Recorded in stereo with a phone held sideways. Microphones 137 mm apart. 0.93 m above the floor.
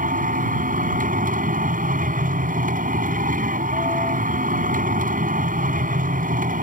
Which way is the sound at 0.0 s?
85° right.